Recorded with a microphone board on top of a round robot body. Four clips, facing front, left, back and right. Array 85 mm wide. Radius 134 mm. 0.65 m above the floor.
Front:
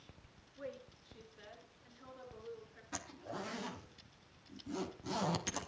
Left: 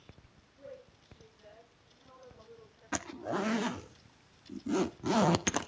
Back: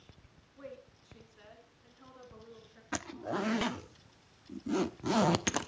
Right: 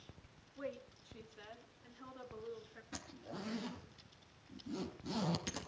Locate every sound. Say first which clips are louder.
0.6 s a woman speaking: right 4 dB, front 1 dB; 115° right, 6 m; by 2.8 s 110° right, 8.5 m
2.9 s a zipper: left 14 dB, back 9 dB; 125° left, 1.1 m